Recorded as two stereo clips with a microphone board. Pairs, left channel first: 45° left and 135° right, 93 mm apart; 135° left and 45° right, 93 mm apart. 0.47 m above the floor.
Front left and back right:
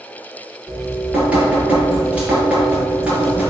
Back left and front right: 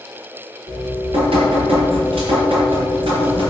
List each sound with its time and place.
0.7 s dripping: 60° right, 5 m